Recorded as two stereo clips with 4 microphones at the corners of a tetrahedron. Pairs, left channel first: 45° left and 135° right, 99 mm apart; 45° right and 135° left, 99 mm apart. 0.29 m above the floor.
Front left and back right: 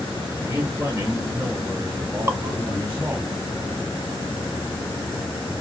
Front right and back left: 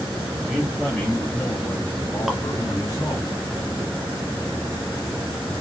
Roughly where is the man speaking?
Behind right.